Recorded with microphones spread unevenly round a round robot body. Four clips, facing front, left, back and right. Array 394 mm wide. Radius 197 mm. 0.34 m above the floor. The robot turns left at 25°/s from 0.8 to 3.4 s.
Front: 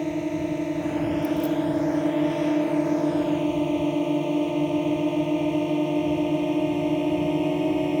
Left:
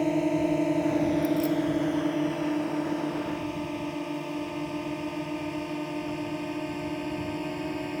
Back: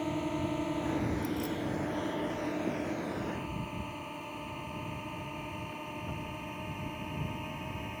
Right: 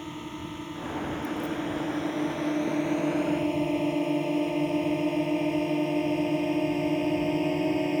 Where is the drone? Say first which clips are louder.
Left 13 dB, front 7 dB; 50° left; by 8.0 s 20° right.